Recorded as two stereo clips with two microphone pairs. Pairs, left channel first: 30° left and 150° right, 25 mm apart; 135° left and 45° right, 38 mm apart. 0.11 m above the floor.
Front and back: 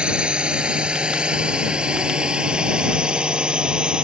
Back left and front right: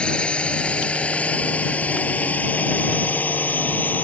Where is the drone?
175° right; by 4.0 s 165° left.